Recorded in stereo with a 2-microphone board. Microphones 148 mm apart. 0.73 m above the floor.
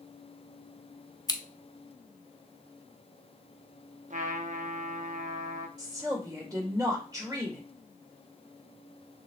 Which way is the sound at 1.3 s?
25° left (ahead or behind).